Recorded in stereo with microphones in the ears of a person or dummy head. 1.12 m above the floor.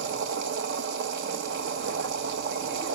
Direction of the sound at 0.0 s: 50° right (ahead or behind).